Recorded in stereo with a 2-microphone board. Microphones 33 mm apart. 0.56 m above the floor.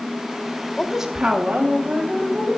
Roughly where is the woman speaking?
Centre.